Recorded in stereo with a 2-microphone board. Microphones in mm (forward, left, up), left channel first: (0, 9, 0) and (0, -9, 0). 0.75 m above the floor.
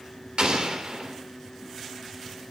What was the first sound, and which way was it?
An explosion, 65° right (ahead or behind).